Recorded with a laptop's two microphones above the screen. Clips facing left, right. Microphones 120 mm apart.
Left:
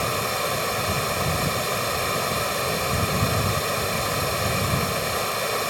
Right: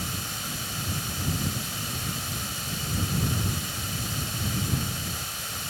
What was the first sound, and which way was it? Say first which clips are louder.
Running water: left 12 dB; 80° left.